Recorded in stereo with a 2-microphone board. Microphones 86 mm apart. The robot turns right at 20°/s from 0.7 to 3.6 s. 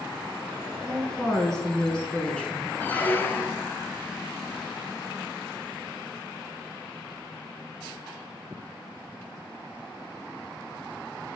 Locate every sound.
0.8 s a woman speaking: centre (ahead or behind), 1.1 m; by 2.7 s 15° left (ahead or behind), 1.1 m
2.8 s a squeak: 20° left (ahead or behind), 0.5 m; by 3.7 s 30° left (ahead or behind), 0.5 m